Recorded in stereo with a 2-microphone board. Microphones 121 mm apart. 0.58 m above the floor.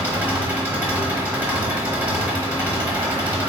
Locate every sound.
0.0 s an engine running: 15° right (ahead or behind), 0.8 m